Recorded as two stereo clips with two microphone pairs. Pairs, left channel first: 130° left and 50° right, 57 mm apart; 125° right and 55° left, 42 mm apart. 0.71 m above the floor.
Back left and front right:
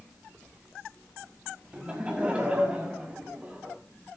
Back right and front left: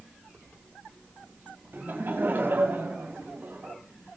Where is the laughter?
20° left, 4.5 m.